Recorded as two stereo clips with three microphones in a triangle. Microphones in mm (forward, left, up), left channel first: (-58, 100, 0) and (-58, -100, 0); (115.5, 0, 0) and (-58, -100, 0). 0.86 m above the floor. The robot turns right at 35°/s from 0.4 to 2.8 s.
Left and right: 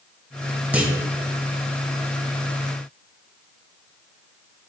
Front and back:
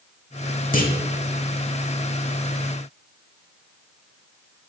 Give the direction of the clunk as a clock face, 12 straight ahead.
12 o'clock.